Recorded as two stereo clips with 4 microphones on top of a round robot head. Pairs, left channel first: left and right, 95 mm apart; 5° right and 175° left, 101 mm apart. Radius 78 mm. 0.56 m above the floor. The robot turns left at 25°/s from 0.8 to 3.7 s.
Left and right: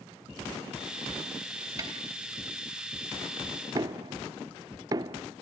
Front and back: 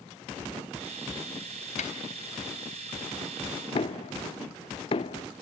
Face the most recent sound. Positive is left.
turn(degrees=-35)